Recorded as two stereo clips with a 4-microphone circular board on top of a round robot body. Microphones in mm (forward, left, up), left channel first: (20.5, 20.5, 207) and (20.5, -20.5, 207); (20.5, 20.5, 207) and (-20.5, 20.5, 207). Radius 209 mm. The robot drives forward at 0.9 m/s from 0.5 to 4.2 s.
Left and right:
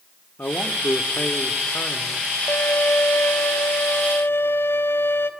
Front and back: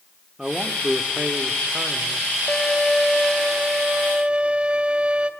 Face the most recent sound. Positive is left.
turn(degrees=120)